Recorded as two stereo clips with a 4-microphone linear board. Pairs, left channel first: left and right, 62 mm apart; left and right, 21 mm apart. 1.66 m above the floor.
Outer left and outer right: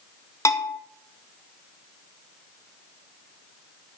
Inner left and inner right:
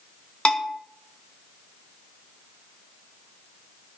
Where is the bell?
50° left (ahead or behind), 1.6 m.